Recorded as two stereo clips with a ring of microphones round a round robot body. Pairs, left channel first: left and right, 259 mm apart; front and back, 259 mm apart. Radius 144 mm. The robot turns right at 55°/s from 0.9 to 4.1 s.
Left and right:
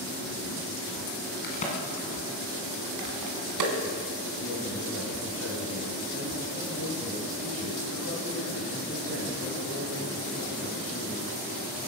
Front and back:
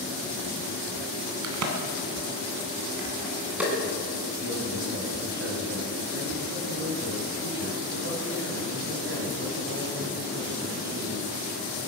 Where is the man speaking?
130° left, 3.5 m.